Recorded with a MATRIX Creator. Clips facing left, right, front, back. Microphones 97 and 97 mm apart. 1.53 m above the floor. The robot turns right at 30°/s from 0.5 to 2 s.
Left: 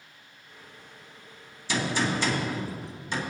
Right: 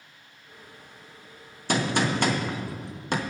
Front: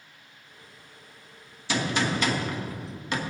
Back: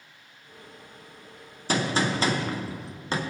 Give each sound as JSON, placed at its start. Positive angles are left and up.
{"t": 1.7, "sound": "a gunshot", "azimuth_deg": -130, "distance_m": 1.1}